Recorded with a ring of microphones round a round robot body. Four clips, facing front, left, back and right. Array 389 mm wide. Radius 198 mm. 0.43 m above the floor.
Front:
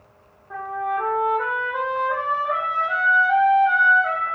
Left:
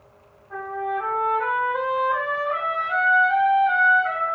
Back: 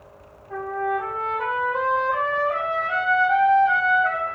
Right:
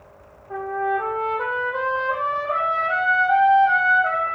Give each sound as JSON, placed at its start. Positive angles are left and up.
{"t": 0.5, "sound": "a trumpet", "azimuth_deg": -75, "distance_m": 3.5}